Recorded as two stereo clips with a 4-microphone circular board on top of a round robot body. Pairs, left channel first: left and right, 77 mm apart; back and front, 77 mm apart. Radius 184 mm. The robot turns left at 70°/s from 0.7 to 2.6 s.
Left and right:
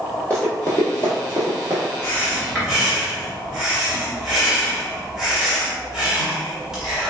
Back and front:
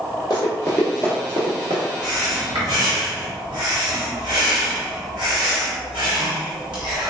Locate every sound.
0.3 s running footsteps: 160° left, 0.6 m; by 1.9 s 35° right, 0.7 m
2.0 s breathing: 35° left, 1.2 m; by 7.1 s 10° right, 1.2 m